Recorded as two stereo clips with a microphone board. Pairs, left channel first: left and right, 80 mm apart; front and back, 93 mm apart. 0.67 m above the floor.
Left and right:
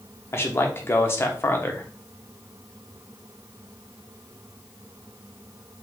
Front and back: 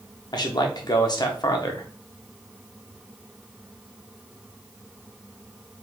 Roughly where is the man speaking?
Ahead left.